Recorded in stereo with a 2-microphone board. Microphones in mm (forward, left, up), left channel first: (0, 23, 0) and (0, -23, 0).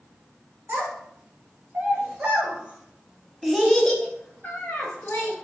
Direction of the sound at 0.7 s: 50° right (ahead or behind).